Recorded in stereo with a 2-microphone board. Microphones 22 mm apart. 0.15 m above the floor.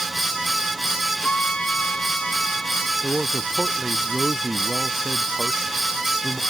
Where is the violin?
55° left (ahead or behind).